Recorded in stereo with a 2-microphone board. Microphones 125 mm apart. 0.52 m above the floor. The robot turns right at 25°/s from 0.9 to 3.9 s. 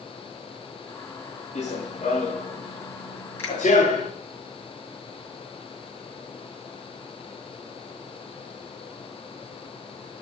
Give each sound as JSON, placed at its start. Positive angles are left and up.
{"t": 1.6, "sound": "running footsteps", "side_deg": 70, "distance_m": 3.0}
{"t": 3.4, "sound": "a finger snap", "side_deg": 20, "distance_m": 4.5}